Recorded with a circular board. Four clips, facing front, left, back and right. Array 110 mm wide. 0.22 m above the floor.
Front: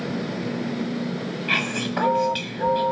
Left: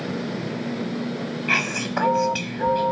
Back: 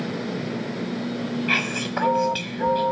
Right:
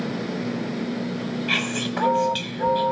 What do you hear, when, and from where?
1.5 s whispering: 100° left, 1.4 m